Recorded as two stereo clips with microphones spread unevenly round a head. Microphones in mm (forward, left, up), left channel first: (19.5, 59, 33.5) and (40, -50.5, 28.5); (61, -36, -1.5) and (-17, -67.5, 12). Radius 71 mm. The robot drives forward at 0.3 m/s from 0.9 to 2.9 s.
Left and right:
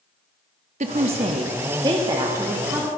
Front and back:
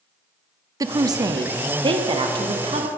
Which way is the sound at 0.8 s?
120° right.